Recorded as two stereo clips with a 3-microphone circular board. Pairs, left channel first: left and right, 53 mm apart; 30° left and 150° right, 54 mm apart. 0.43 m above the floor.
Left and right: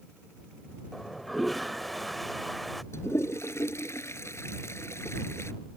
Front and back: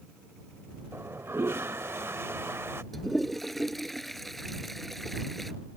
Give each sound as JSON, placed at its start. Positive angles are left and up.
{"t": 0.9, "sound": "a toilet flushing", "azimuth_deg": 180}
{"t": 2.9, "sound": "a toilet flushing", "azimuth_deg": 120}